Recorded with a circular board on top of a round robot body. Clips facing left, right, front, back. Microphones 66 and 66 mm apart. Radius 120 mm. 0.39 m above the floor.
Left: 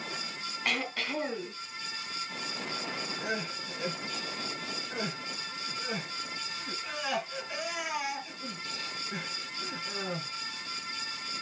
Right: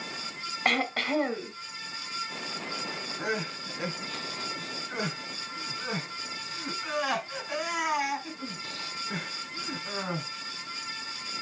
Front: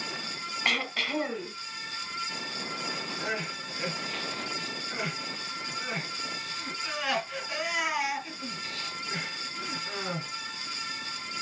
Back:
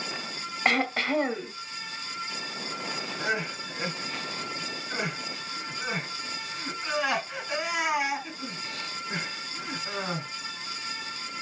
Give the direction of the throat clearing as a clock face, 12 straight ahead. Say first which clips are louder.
Right 6 dB, back 5 dB; 4 o'clock.